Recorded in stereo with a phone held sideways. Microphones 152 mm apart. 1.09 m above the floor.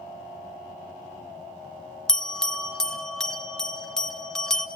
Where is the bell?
5° left (ahead or behind), 0.8 m.